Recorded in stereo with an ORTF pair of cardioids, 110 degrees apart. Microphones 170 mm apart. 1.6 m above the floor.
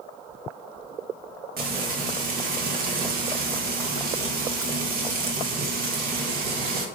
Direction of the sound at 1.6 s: 70° right.